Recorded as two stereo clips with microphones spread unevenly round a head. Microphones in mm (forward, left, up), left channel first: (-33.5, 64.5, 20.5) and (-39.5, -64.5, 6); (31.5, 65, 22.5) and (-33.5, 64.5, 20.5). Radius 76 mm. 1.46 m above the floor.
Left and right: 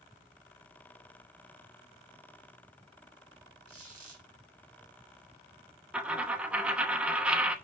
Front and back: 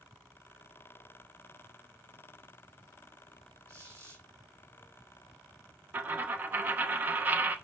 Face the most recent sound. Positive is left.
turn(degrees=180)